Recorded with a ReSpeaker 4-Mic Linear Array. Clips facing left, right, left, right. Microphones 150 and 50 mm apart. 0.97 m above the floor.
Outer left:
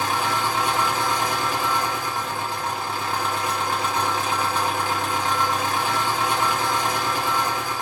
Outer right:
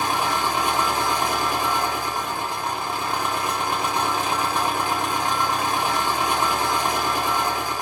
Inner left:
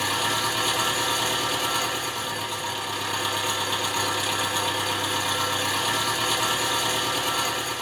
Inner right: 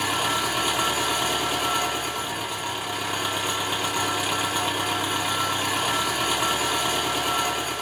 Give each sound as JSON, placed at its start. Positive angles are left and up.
{"t": 0.0, "sound": "an engine running", "side_deg": -15, "distance_m": 1.1}